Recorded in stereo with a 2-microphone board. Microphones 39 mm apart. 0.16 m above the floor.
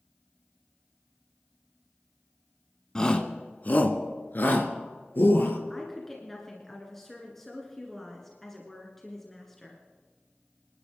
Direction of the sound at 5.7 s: 5° left (ahead or behind).